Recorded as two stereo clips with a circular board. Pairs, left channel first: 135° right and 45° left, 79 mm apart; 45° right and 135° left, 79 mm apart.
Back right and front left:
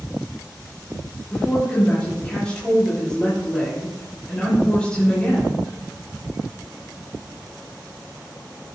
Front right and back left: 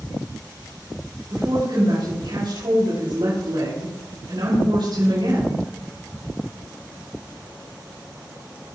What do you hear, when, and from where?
1.3 s a woman speaking: 150° left, 6 m